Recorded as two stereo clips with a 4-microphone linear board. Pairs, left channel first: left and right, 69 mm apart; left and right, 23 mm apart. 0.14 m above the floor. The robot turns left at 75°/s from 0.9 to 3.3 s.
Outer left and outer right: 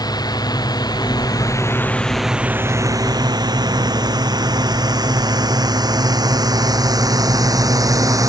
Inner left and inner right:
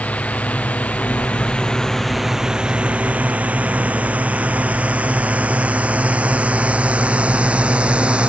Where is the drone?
75° left (ahead or behind); by 8.3 s 55° right (ahead or behind).